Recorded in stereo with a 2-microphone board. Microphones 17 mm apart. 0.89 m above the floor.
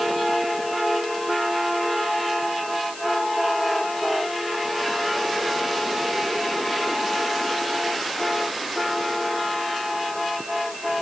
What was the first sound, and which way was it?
Only background noise.